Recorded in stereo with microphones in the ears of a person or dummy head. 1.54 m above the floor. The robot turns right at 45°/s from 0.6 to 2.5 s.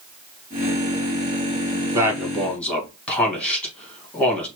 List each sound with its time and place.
1.9 s a man speaking: 20° right (ahead or behind), 1.8 m; by 4.5 s 5° left (ahead or behind), 1.8 m